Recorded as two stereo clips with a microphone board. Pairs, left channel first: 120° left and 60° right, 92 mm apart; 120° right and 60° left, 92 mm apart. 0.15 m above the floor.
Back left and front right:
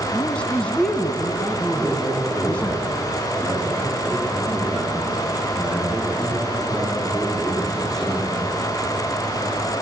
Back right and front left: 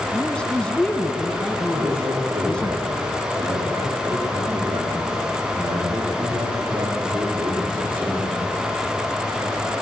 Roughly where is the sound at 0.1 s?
Behind.